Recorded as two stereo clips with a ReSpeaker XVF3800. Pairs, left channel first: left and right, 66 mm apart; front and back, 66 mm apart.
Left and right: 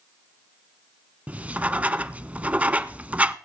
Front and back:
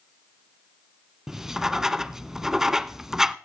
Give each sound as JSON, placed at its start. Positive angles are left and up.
{"t": 1.3, "sound": "writing", "azimuth_deg": -105, "distance_m": 0.5}